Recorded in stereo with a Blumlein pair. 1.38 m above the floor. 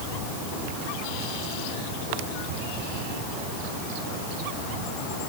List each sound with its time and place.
Only background noise.